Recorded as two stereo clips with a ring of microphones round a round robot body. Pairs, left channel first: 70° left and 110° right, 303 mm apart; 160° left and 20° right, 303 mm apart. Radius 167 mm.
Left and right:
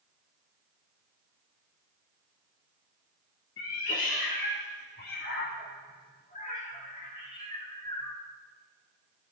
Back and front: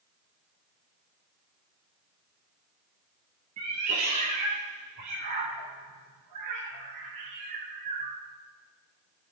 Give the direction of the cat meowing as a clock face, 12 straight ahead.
11 o'clock.